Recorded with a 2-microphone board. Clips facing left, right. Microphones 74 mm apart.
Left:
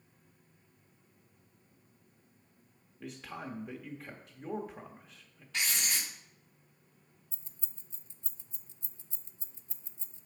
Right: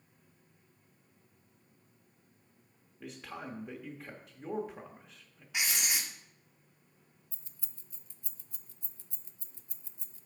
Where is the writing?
15° right (ahead or behind), 1.4 m.